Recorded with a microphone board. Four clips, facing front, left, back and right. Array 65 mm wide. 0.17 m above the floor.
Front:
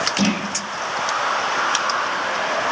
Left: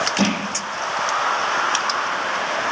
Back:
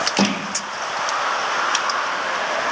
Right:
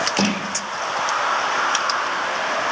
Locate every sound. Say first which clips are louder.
0.2 s crushing: left 1 dB, back 1 dB; 155° right, 6 m